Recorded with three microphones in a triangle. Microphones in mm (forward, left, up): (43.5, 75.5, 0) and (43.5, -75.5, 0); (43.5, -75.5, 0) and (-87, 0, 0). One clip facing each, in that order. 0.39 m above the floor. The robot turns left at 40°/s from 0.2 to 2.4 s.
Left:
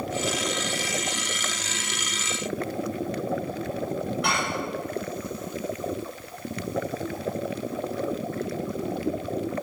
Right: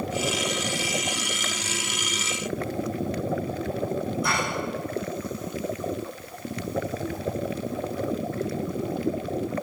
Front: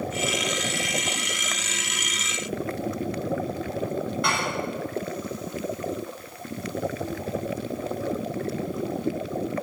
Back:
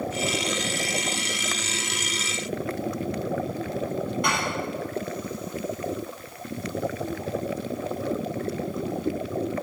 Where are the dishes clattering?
80° left, 6 m.